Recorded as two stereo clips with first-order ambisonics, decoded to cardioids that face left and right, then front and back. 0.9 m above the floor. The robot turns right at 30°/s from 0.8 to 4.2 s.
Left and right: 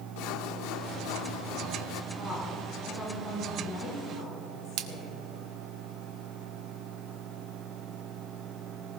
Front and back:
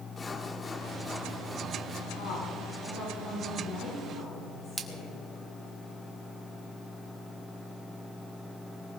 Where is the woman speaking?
20° right, 7 m; by 5.2 s 40° left, 7 m.